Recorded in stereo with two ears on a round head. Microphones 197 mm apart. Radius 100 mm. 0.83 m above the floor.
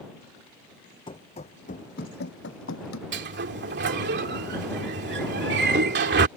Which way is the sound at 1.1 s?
25° left (ahead or behind).